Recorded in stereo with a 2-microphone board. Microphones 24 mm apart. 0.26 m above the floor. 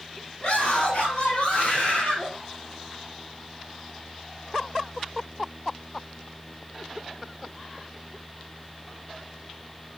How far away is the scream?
About 5.5 m.